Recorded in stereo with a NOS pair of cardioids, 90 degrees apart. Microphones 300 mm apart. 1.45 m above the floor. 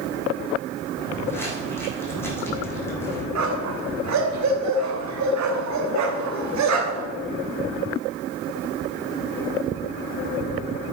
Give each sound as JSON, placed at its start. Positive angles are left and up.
{"t": 1.0, "sound": "footsteps", "azimuth_deg": 10, "distance_m": 5.5}
{"t": 3.4, "sound": "a dog barking", "azimuth_deg": -65, "distance_m": 3.0}